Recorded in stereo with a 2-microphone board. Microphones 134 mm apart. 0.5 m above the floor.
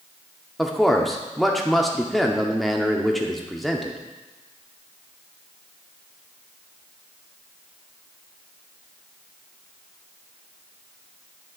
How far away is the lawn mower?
I don't hear a lawn mower.